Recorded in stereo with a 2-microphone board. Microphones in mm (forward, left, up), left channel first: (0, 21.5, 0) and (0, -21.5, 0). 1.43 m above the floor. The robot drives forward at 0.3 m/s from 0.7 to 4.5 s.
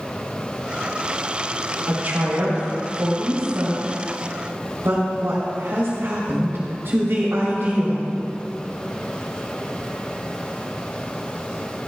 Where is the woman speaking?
55° right (ahead or behind), 4 m; by 8.0 s 65° right (ahead or behind), 3.5 m.